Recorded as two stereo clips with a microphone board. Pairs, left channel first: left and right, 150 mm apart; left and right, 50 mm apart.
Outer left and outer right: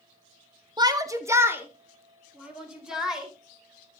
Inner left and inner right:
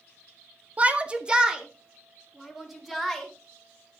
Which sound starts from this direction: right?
A shout, at 0.8 s.